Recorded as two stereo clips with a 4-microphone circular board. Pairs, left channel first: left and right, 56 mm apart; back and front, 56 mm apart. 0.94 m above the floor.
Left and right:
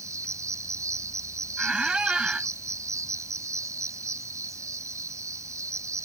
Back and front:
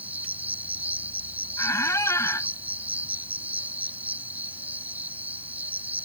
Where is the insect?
60° right.